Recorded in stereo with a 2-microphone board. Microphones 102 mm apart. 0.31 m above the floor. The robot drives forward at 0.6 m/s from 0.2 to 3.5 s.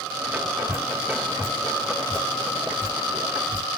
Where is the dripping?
30° right (ahead or behind), 2.5 m; by 3.7 s 20° right (ahead or behind), 4 m.